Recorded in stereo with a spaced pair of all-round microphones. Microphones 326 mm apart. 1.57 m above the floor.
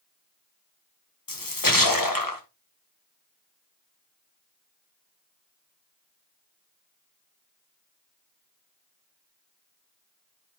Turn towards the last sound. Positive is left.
turn(degrees=90)